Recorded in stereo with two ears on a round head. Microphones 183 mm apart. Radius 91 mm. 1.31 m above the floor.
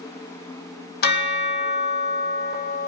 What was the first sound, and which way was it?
A bell, 50° left (ahead or behind).